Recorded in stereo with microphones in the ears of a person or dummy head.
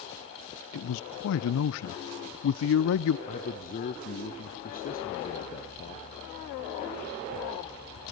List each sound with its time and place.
0.7 s a man speaking: 65° left (ahead or behind), 0.5 m
3.3 s a man speaking: 40° left (ahead or behind), 0.7 m